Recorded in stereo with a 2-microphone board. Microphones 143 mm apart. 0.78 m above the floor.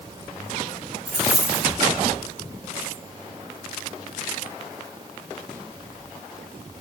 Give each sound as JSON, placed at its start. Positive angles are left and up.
{"t": 1.1, "sound": "a dropped coin", "side_deg": 20, "distance_m": 1.7}